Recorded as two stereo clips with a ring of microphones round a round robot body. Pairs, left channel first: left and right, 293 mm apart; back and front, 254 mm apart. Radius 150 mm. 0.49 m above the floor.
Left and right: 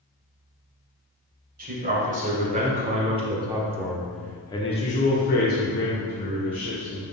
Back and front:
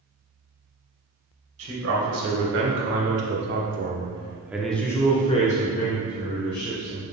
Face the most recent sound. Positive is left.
turn(degrees=140)